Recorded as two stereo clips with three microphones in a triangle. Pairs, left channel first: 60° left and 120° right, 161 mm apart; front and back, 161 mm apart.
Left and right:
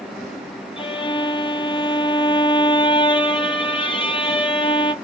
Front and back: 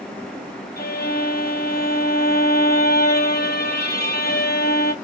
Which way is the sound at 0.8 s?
5° left.